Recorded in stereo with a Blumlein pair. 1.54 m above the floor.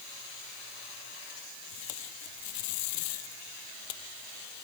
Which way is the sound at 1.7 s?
45° left.